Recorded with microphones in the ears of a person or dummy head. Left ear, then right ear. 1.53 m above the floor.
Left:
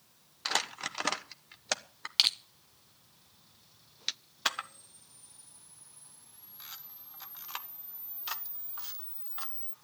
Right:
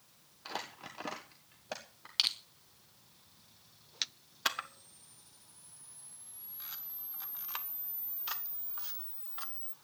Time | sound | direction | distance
0.5 | crumpling | 55° left (ahead or behind) | 1.2 m
2.2 | crushing | 15° left (ahead or behind) | 0.7 m
4.5 | a camera shutter | 5° left (ahead or behind) | 0.8 m